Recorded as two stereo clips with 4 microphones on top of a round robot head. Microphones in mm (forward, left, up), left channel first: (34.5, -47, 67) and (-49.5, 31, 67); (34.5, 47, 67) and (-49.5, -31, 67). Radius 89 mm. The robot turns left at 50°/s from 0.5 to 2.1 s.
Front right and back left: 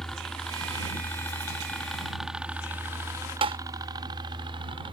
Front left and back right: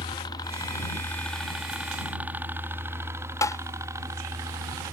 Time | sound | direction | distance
0.0 | a helicopter | 40° left | ?
3.4 | tapping | 105° left | ?